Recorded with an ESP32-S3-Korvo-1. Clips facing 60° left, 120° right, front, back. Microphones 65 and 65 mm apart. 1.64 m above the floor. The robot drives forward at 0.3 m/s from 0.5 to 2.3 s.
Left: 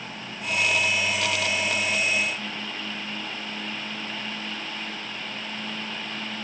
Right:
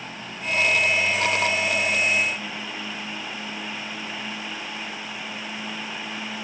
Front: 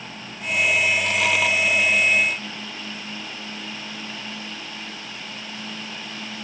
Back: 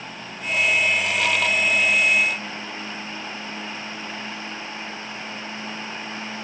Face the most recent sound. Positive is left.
No sound to turn to.